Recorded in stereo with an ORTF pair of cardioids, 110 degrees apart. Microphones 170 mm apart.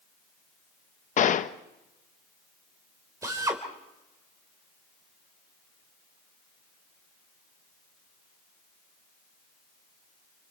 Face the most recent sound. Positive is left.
turn(degrees=-20)